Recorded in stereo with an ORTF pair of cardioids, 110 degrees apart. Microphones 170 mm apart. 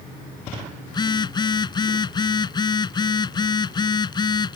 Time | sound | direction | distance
0.9 | a phone buzzing | 30° left | ?